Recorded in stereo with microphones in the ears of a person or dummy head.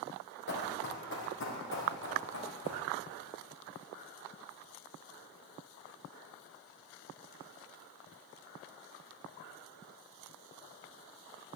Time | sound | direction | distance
0.5 | running footsteps | 55° left (ahead or behind) | 2 m